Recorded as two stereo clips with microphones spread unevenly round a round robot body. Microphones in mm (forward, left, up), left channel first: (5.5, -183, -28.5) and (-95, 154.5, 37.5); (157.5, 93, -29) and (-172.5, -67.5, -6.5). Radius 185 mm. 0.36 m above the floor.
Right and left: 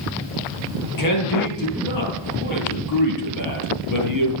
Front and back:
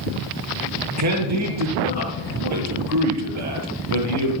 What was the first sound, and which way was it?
A man speaking, 105° right.